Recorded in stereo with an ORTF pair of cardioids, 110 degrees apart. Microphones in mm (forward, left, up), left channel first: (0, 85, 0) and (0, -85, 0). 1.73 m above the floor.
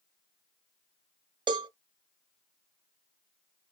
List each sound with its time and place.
1.5 s a cowbell: 25° right, 0.8 m